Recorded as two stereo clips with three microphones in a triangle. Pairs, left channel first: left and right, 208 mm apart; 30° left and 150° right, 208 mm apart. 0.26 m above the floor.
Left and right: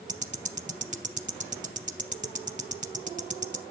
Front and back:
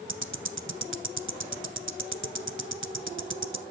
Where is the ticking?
145° right, 1.0 m.